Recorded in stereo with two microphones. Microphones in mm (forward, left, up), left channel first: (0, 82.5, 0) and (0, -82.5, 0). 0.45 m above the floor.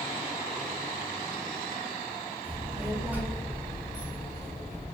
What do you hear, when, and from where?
2.4 s a child speaking: 35° right (ahead or behind), 0.9 m; by 4.8 s 50° left (ahead or behind), 1.1 m